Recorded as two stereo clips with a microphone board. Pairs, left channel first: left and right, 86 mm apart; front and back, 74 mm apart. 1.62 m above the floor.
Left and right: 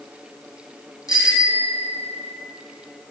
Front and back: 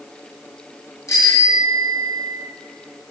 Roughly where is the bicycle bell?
Ahead left.